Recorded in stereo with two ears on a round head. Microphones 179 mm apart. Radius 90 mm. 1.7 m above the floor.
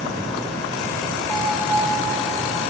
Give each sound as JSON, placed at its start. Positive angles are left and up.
{"t": 1.3, "sound": "a bell", "side_deg": 0, "distance_m": 2.5}